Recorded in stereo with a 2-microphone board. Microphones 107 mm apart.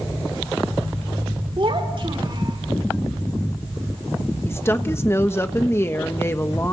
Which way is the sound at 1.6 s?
55° right (ahead or behind).